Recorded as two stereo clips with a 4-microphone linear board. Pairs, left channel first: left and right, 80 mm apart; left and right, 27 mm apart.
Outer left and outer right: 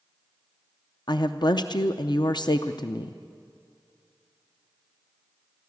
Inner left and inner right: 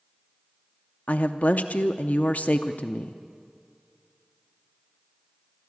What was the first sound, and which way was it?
A woman speaking, 65° left (ahead or behind).